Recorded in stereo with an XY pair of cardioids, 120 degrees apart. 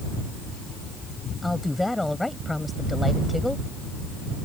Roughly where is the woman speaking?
Ahead.